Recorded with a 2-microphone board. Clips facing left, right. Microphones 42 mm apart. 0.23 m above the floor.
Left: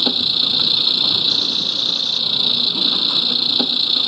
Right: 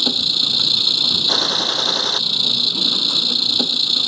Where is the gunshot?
60° right (ahead or behind).